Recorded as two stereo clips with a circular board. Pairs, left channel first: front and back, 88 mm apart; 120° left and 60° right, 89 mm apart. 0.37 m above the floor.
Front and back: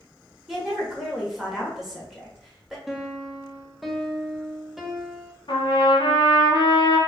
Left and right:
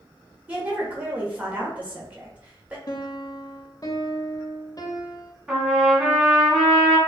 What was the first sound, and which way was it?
A woman speaking, 100° right.